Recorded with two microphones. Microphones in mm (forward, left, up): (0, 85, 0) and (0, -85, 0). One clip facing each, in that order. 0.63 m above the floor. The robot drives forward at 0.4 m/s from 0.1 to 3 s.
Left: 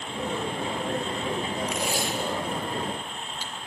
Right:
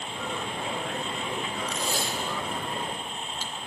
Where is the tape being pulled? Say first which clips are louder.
Left 3 dB; 10° left (ahead or behind), 2.5 m; by 3.5 s 15° left (ahead or behind), 1.8 m.